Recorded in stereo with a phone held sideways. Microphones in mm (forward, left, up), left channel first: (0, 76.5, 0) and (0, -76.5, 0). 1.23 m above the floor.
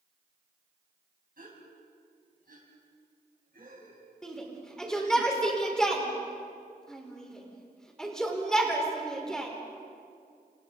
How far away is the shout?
About 4.5 m.